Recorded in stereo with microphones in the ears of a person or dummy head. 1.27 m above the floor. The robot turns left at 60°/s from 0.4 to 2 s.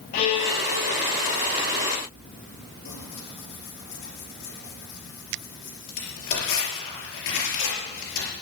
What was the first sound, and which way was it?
A violin, 135° left.